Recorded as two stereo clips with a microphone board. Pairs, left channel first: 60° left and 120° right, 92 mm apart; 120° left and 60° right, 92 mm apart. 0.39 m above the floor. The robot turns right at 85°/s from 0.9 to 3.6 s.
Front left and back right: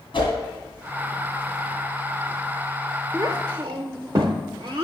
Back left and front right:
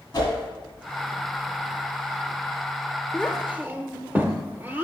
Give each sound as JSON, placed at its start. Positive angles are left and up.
{"t": 0.1, "sound": "a whoosh", "azimuth_deg": 85, "distance_m": 2.5}
{"t": 3.1, "sound": "a child speaking", "azimuth_deg": -160, "distance_m": 0.5}